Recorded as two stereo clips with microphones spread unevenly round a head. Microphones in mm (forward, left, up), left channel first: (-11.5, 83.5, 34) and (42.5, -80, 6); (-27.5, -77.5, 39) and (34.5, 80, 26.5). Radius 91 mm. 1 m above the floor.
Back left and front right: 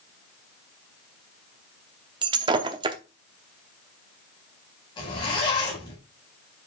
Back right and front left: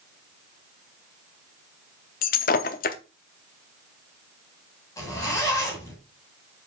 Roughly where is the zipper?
Behind.